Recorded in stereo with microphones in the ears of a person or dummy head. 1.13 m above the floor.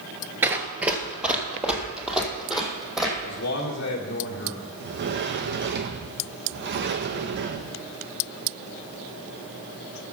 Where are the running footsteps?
15° right (ahead or behind), 1.3 m; by 3.1 s 5° right (ahead or behind), 3.5 m.